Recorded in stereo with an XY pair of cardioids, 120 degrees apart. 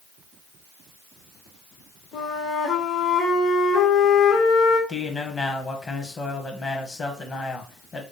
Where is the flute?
60° left, 1.5 m.